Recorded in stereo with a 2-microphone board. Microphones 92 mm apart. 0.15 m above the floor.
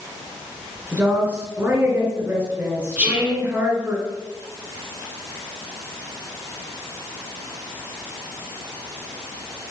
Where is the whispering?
15° right (ahead or behind), 1.7 m.